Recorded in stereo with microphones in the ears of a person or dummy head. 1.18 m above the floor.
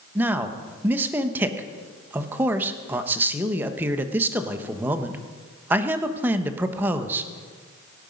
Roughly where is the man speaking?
Centre.